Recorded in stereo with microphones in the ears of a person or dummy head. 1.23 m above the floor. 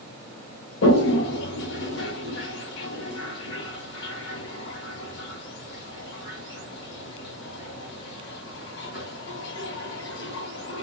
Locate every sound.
0.8 s a toilet flushing: 75° left (ahead or behind), 1.2 m